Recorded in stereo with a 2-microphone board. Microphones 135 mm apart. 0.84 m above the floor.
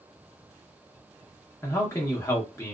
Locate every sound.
1.6 s a man speaking: 20° left (ahead or behind), 1.0 m